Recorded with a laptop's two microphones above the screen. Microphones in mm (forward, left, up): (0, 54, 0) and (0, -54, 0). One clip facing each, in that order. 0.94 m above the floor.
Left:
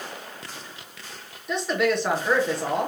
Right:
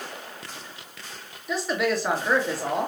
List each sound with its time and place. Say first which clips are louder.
1.5 s a woman speaking: left 2 dB; centre (ahead or behind), 1.1 m